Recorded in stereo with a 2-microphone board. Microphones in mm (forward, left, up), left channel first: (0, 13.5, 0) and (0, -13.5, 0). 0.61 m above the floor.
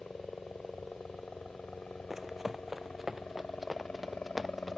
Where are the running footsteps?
15° right (ahead or behind); by 4.8 s 5° right (ahead or behind).